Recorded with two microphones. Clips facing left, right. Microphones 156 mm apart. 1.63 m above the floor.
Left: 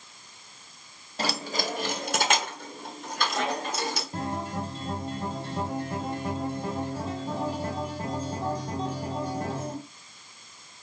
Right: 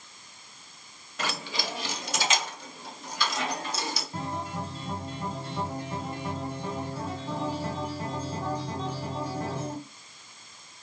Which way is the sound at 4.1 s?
30° left (ahead or behind).